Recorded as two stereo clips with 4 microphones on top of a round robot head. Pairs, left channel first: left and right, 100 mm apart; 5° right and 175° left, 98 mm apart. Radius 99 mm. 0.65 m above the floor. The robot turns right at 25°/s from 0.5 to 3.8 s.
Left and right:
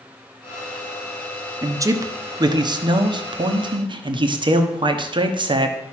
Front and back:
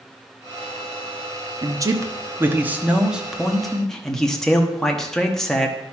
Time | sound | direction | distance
1.6 | a man speaking | 145° right | 1.2 m